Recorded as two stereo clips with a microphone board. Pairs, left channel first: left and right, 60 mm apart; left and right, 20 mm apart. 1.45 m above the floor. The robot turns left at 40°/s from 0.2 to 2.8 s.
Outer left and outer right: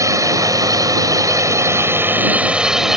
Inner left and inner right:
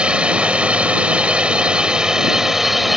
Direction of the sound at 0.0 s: 65° right.